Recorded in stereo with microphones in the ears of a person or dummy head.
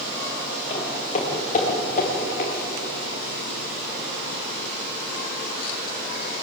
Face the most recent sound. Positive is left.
turn(degrees=50)  # may be behind; listen again after turning